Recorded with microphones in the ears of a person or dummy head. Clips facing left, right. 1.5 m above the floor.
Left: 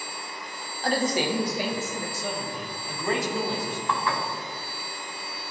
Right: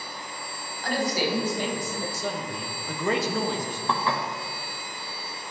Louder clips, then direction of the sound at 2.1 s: Right 1 dB; 70° right (ahead or behind).